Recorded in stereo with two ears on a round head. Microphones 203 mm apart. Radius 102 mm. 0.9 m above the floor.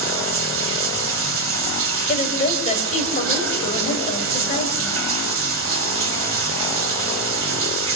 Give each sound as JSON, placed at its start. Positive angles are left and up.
{"t": 0.0, "sound": "running water", "side_deg": -65, "distance_m": 2.0}
{"t": 2.1, "sound": "a woman speaking", "side_deg": 35, "distance_m": 5.5}